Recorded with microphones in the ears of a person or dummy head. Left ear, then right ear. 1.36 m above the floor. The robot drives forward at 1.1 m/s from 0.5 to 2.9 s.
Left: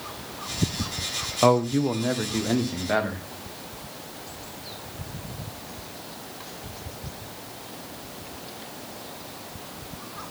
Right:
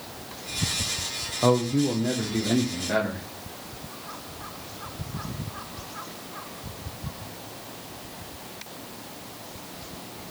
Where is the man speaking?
60° left (ahead or behind), 0.7 m; by 3.2 s 20° left (ahead or behind), 2.0 m.